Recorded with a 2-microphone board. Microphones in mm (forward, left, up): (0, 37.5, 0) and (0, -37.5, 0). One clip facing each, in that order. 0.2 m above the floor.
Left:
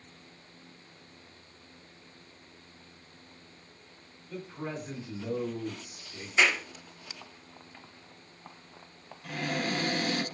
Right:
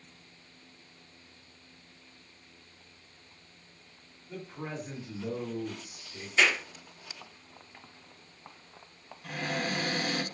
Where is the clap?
10° left (ahead or behind), 1.2 m.